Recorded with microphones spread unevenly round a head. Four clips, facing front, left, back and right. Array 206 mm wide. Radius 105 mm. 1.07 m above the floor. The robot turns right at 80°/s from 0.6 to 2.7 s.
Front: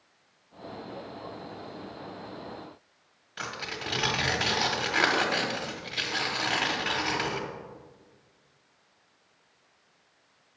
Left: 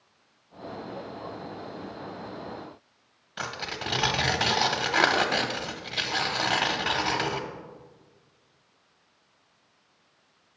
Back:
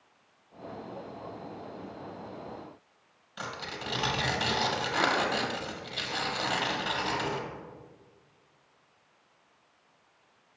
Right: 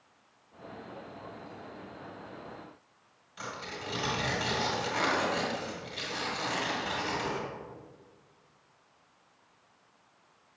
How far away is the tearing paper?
About 0.7 m.